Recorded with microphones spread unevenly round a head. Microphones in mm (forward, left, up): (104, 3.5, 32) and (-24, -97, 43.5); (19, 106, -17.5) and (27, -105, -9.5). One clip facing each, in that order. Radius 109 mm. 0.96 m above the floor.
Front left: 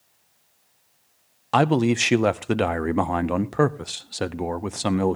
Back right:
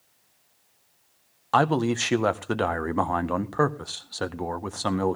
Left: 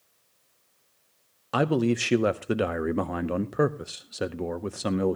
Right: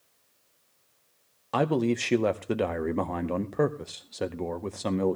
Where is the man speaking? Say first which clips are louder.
Front left 3 dB, left 1 dB; 25° left, 0.5 m.